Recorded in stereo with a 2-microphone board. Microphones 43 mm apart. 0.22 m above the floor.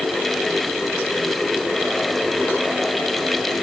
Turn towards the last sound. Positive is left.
No sound to turn to.